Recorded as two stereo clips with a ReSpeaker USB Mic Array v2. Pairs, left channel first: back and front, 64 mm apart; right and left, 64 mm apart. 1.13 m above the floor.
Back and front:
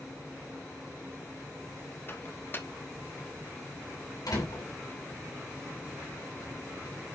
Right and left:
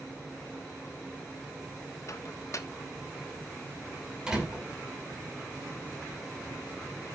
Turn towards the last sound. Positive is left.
turn(degrees=170)